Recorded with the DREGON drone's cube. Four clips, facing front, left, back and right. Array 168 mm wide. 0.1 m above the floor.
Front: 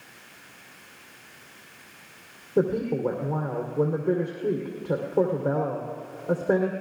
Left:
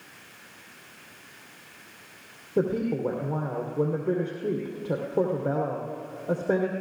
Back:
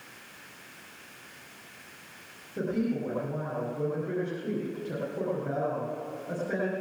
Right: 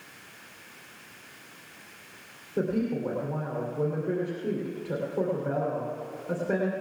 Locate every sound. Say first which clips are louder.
2.6 s a woman speaking: left 2 dB, front 6 dB; 40° left, 3 m